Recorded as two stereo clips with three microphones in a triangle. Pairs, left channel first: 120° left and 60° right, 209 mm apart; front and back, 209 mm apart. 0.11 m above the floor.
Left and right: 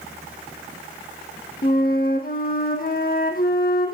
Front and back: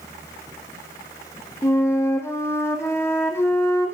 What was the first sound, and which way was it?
A flute, 80° left.